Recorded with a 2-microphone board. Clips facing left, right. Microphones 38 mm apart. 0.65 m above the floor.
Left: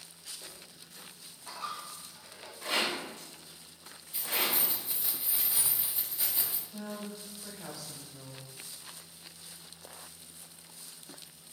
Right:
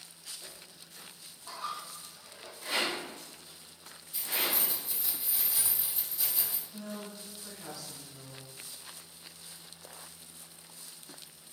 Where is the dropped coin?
65° left (ahead or behind), 1.1 m.